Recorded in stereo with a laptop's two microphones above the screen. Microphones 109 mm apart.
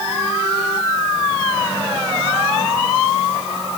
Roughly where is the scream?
I don't hear a scream.